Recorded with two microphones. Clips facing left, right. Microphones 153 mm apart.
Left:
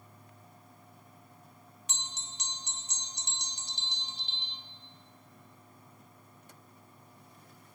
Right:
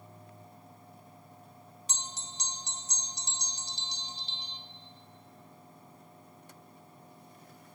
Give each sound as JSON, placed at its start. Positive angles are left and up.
{"t": 1.9, "sound": "a bell", "side_deg": -35, "distance_m": 1.9}